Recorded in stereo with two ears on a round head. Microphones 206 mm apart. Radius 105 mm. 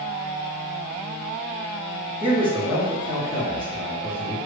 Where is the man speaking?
25° right (ahead or behind), 1.5 m.